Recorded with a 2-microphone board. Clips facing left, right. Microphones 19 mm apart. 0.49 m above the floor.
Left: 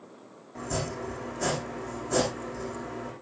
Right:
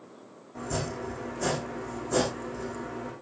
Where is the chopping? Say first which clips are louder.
Even; 10° left (ahead or behind), 8.5 m.